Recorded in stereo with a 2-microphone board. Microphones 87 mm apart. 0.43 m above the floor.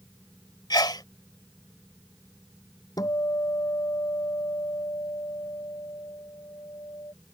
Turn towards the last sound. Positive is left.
turn(degrees=45)  # may be behind; listen again after turning